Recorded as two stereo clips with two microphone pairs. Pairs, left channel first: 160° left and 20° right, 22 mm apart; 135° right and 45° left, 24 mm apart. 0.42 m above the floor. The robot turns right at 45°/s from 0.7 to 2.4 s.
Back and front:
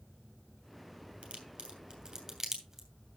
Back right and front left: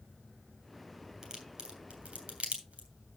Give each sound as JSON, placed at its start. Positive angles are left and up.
{"t": 1.2, "sound": "a crack", "azimuth_deg": -10, "distance_m": 3.5}